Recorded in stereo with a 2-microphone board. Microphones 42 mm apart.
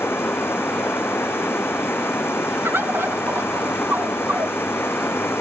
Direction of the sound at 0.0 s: 70° left (ahead or behind).